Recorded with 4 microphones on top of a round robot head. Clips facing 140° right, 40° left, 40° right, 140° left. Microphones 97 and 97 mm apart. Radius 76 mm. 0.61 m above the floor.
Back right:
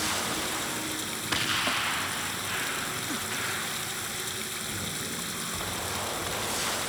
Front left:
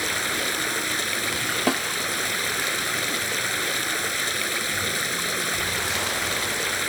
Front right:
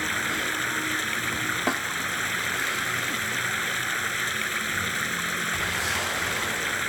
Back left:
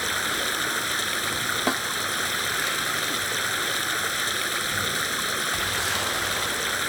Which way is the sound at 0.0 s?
70° left.